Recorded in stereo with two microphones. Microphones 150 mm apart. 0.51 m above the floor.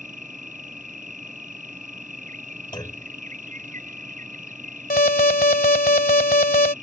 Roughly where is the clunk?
Left.